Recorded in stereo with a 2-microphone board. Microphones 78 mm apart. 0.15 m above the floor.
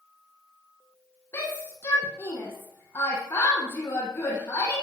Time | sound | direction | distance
1.3 | a shout | 30° left (ahead or behind) | 7 m